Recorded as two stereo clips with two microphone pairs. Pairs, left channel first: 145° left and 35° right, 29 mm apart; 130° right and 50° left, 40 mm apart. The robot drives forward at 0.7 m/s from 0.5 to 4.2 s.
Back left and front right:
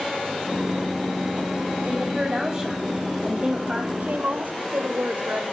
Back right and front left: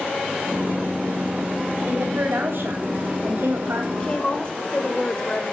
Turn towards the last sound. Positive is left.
turn(degrees=-65)